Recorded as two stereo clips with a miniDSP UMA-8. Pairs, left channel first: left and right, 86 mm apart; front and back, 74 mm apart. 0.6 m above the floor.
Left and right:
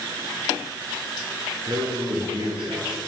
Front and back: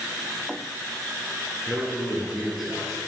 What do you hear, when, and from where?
1.7 s a man speaking: 100° right, 9.5 m; by 3.0 s 90° right, 11 m